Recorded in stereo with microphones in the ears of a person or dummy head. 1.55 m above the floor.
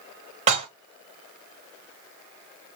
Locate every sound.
0.5 s dishes clattering: 30° right (ahead or behind), 0.9 m